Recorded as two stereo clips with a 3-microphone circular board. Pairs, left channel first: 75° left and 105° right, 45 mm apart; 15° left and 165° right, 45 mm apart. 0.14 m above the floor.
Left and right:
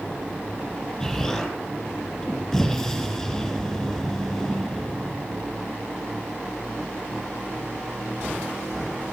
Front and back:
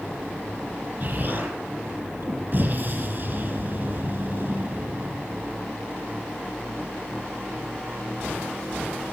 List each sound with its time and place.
1.0 s an explosion: 155° left, 3 m